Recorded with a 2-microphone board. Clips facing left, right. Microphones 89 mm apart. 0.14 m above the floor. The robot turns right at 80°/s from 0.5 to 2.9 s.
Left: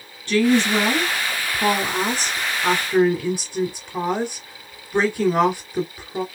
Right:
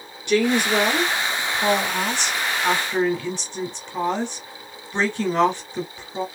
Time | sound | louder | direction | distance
0.3 | a woman speaking | left 2 dB | 25° right | 1.5 m